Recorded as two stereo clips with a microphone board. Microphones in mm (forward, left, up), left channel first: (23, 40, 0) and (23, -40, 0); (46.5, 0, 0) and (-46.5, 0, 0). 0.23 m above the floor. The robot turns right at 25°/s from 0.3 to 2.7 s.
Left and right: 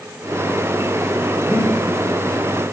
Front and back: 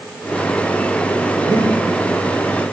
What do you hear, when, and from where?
1.5 s breathing: 160° right, 6 m; by 1.8 s 150° right, 6 m